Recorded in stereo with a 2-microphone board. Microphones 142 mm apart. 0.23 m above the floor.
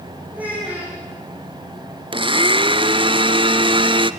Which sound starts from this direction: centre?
A child speaking, at 0.3 s.